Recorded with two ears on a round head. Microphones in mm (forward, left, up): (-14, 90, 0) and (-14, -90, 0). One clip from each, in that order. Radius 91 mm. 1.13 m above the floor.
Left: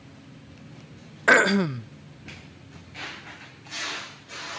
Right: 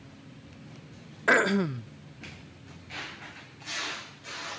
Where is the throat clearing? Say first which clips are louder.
Left 5 dB; 15° left (ahead or behind).